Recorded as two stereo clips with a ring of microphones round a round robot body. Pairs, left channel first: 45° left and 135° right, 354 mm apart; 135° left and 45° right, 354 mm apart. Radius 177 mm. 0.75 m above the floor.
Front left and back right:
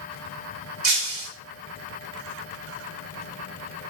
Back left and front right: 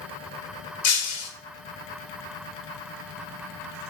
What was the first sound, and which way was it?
Breaking glass, 175° right.